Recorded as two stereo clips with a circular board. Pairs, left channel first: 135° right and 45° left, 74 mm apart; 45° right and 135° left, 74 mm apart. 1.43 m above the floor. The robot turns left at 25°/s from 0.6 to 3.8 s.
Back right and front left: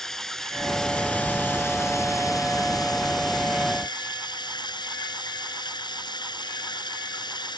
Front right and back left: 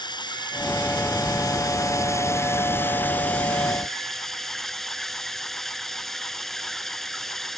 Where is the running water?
50° right; by 7.6 s 130° right.